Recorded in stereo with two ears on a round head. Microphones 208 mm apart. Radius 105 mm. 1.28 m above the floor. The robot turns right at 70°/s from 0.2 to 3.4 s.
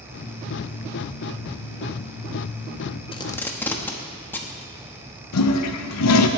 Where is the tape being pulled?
25° left (ahead or behind), 0.9 m; by 4.5 s 10° left (ahead or behind), 0.9 m.